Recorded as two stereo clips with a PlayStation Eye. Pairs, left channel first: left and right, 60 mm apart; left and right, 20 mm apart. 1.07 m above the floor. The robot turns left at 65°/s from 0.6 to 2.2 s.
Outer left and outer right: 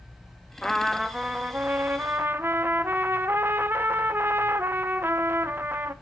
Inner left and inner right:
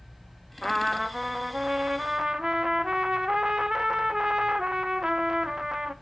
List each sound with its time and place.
0.6 s a trumpet: 15° left, 0.7 m; by 5.9 s 85° right, 0.7 m